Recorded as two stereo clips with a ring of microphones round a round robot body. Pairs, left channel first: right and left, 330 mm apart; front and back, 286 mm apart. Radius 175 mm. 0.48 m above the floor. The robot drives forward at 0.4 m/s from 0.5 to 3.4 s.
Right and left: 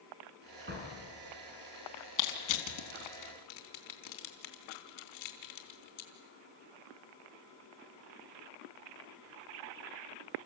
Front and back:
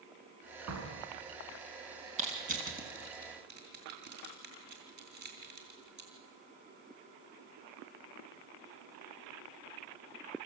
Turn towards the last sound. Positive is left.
turn(degrees=-120)